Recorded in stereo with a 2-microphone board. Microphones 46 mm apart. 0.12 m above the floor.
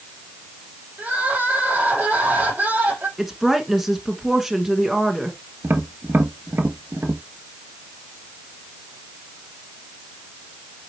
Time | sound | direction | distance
1.0 | crying | 35° right (ahead or behind) | 5 m
3.2 | a woman speaking | 5° right (ahead or behind) | 1.4 m
5.6 | tapping | 55° right (ahead or behind) | 1.1 m